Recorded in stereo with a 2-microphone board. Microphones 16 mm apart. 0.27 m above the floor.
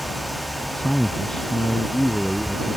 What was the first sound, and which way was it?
A man speaking, 55° left (ahead or behind).